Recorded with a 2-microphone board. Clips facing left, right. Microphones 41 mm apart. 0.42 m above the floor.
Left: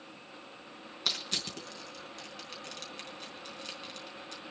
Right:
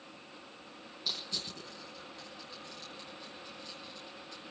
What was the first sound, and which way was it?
Crushing, 75° left (ahead or behind).